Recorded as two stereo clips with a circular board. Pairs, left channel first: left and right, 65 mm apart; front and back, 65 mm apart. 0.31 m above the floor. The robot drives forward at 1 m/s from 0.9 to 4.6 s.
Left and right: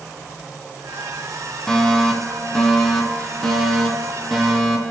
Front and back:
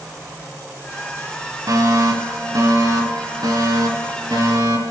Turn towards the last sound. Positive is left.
turn(degrees=175)